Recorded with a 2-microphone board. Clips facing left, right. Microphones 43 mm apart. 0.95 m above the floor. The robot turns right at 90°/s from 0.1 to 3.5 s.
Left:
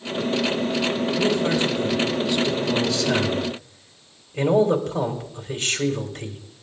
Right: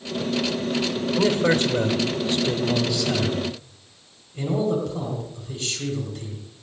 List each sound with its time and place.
1.2 s a man speaking: 165° right, 3 m; by 6.4 s 45° left, 3 m